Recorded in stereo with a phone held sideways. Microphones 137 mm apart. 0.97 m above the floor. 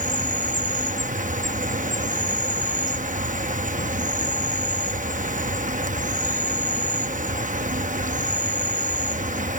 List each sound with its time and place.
0.0 s an insect: 70° right (ahead or behind)